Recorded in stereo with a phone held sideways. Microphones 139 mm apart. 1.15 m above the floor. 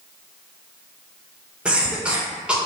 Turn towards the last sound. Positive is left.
turn(degrees=-5)  # may be behind; listen again after turning